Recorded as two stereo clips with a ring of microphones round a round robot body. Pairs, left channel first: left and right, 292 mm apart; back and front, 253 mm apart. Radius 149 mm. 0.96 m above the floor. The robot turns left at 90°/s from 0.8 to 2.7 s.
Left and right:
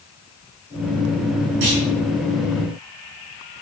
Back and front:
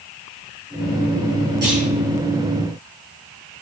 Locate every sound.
1.6 s a clunk: 75° right, 5 m; by 1.8 s 100° right, 5 m